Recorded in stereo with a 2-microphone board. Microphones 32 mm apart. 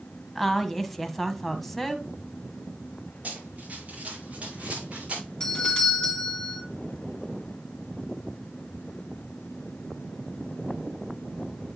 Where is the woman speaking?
10° left (ahead or behind), 1.0 m.